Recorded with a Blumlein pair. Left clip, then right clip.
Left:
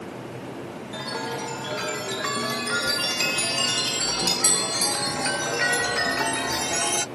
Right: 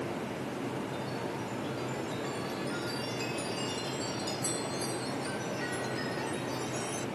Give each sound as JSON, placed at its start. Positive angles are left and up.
{"t": 0.9, "sound": "a chime", "azimuth_deg": 35}